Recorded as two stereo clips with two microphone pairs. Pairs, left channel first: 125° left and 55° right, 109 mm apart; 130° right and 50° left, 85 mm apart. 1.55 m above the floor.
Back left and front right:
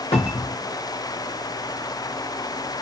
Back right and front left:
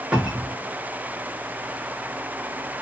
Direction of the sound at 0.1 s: 125° left.